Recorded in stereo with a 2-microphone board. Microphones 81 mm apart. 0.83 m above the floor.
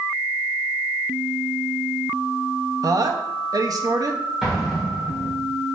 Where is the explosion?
5° right (ahead or behind), 2 m.